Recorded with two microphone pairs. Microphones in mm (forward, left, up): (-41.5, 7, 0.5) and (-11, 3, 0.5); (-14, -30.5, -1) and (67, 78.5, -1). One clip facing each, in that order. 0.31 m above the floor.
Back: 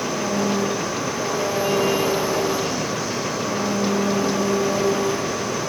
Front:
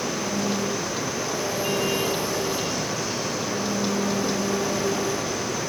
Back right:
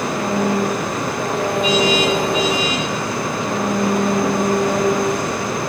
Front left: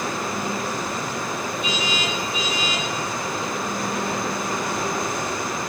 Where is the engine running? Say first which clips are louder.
Back 4 dB, back right 8 dB; 125° right.